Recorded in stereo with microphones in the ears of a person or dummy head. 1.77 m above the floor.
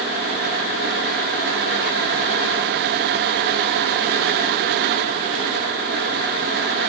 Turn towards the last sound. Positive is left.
No sound to turn to.